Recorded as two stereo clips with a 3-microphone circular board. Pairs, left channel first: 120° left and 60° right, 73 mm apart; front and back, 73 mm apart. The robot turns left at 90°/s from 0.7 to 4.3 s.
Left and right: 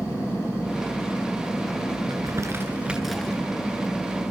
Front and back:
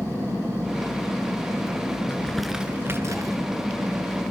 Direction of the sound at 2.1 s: 60° right.